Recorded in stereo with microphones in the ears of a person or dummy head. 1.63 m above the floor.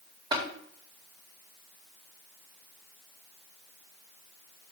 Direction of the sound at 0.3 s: 20° right (ahead or behind).